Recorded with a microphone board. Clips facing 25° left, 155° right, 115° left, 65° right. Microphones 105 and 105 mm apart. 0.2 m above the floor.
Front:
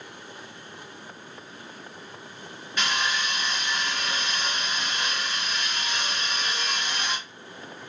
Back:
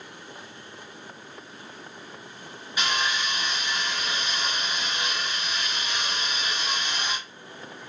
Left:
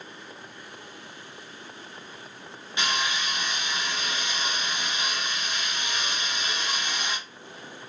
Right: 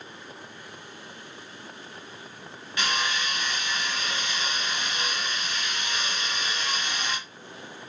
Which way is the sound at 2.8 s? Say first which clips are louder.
Even, even; 135° left.